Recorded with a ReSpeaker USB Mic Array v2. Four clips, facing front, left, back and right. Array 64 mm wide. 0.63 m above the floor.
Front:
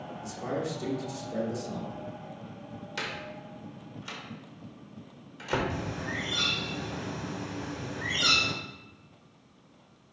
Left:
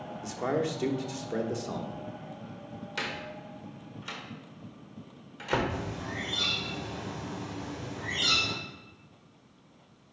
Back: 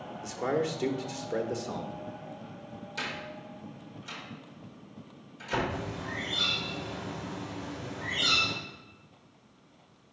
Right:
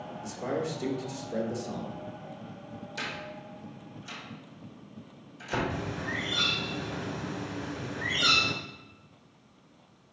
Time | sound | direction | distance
0.2 | a man speaking | 135° left | 1.1 m
3.0 | a door slam | 60° left | 1.5 m
5.7 | a bird | 60° right | 1.6 m